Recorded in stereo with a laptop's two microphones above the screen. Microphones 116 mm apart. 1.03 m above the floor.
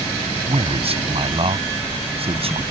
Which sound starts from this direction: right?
A man speaking, at 0.5 s.